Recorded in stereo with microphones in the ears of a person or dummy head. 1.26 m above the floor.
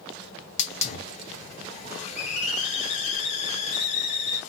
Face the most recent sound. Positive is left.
turn(degrees=30)  # may be behind; listen again after turning